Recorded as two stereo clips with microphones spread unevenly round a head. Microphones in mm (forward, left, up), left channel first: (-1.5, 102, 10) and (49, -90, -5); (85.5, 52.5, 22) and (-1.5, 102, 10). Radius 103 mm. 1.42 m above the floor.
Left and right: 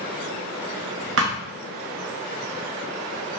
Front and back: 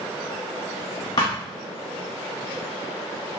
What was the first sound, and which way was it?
A thud, 80° right.